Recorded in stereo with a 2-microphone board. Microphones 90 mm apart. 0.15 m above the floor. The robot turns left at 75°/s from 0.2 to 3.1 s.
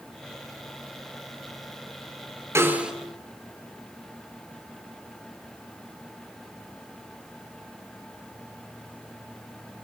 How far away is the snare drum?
About 2.5 m.